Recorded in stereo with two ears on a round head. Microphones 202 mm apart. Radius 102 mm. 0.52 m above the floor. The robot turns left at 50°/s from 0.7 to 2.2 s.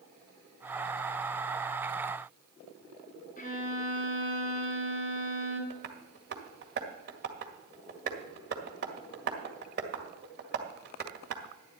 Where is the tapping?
50° right (ahead or behind), 1.9 m.